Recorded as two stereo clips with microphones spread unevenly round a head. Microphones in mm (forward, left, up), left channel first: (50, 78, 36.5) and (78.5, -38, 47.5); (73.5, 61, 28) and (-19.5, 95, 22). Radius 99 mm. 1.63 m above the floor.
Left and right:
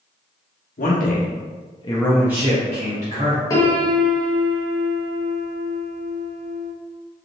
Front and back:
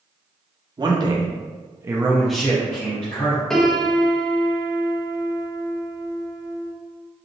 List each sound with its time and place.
0.8 s a man speaking: 115° left, 1.1 m; by 3.4 s 75° right, 1.1 m
3.5 s a piano: 55° left, 0.9 m